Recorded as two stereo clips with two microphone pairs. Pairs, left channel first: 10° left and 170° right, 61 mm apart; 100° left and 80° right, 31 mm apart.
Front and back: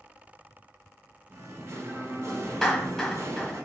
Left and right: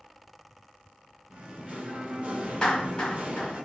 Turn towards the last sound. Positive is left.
turn(degrees=75)